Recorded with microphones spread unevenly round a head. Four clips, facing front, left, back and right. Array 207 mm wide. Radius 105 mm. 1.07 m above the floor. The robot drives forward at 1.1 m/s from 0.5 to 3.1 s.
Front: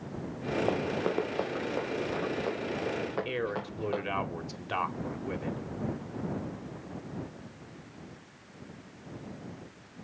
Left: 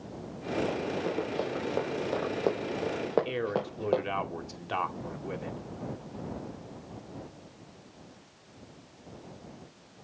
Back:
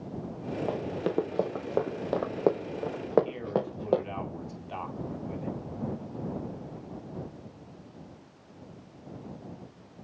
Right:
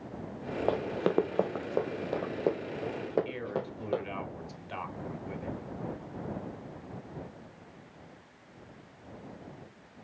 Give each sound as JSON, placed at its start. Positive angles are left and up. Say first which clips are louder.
{"t": 0.7, "sound": "running footsteps", "louder": "right 2 dB, back 1 dB", "azimuth_deg": -70, "distance_m": 1.5}
{"t": 3.2, "sound": "a man speaking", "louder": "left 4 dB, back 2 dB", "azimuth_deg": 50, "distance_m": 2.5}